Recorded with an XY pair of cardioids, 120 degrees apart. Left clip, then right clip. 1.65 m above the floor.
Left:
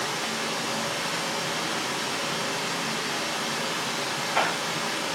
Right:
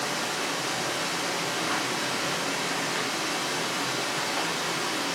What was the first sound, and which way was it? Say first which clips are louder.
Running water: even; 70° right.